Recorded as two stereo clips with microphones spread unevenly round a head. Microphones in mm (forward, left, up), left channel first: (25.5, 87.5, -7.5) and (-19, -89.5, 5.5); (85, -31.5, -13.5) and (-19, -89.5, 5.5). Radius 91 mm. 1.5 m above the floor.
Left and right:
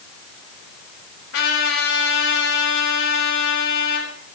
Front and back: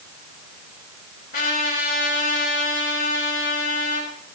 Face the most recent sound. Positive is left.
turn(degrees=55)